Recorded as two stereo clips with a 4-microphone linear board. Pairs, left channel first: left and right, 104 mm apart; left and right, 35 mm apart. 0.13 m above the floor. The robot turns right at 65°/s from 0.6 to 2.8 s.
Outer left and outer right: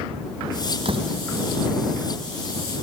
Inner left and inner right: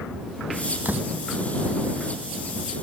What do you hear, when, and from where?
0.8 s a door slam: 65° right (ahead or behind); by 1.1 s 45° right (ahead or behind)